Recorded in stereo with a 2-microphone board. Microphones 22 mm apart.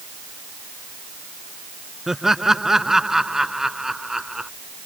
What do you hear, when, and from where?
2.1 s laughter: 15° right (ahead or behind); by 4.5 s 20° right (ahead or behind)